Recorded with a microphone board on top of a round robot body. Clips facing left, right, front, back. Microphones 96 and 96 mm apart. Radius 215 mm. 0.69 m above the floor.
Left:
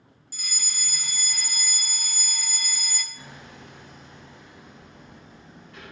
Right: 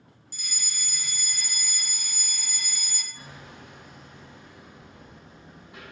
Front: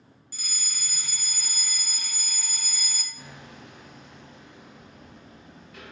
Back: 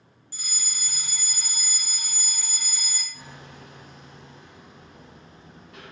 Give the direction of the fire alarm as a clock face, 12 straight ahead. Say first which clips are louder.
Left 2 dB, back 1 dB; 8 o'clock.